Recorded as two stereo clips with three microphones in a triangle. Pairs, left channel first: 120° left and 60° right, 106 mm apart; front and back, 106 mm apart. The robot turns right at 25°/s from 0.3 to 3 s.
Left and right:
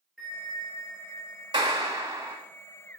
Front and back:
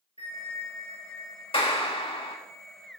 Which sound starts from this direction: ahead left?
A bell, at 0.2 s.